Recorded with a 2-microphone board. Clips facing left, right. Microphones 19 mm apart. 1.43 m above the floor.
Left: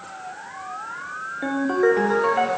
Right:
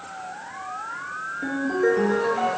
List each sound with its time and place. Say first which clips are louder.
1.4 s a ringtone: left 3 dB; 40° left (ahead or behind), 1.0 m